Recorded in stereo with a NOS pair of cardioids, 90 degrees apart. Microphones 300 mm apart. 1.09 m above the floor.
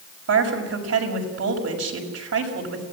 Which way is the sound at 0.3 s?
55° right.